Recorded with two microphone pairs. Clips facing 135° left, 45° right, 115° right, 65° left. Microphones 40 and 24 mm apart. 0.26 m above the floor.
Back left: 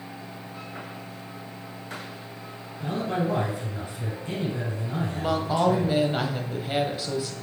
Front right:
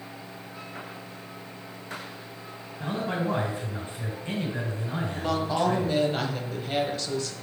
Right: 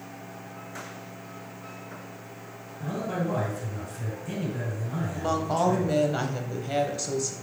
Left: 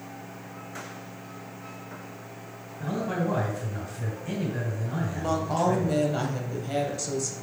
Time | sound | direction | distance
2.8 | a man speaking | straight ahead | 3 m
5.1 | a woman speaking | 160° right | 1.0 m